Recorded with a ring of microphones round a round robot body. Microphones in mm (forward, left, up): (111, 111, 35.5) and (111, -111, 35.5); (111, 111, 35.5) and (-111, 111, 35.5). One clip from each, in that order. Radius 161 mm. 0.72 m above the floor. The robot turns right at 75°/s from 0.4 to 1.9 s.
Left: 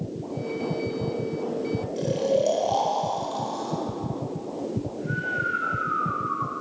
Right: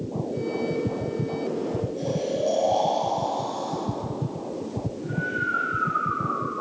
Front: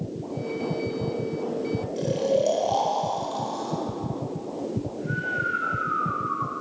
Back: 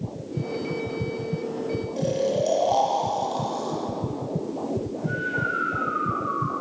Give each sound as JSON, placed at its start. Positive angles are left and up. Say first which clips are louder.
{"t": 2.0, "sound": "snoring", "louder": "left 6 dB, front 1 dB", "azimuth_deg": 85, "distance_m": 1.3}